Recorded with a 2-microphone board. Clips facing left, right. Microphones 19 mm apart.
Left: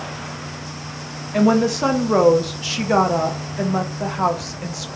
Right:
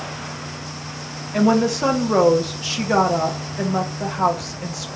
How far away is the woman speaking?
About 0.6 m.